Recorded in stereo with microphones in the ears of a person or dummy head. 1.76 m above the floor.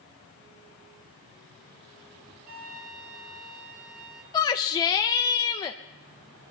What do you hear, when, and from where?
2.5 s a flute: 45° right (ahead or behind), 6 m
4.3 s a shout: 20° left (ahead or behind), 0.6 m